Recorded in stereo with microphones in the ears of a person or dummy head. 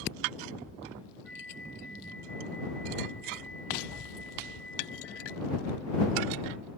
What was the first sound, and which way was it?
A flute, 5° left (ahead or behind).